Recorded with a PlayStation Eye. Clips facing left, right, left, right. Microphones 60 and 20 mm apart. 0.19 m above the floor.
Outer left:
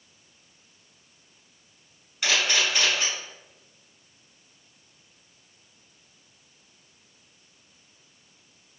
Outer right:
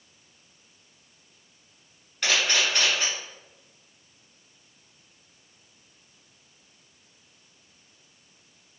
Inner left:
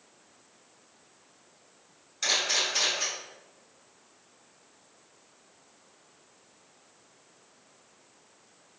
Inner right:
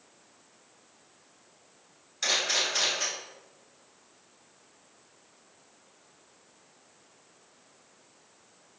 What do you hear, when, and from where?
2.2 s a camera shutter: 5° left (ahead or behind), 1.4 m